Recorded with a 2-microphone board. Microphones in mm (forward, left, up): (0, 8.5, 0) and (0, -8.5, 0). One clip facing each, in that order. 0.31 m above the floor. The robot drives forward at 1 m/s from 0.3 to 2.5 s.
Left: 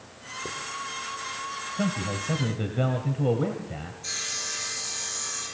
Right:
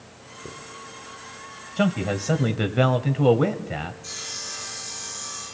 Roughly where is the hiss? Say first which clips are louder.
Left 4 dB; left.